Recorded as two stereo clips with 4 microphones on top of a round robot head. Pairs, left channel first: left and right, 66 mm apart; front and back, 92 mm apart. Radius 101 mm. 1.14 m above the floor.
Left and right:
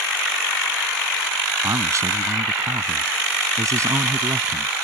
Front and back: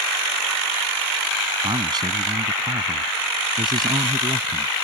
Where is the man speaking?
130° right.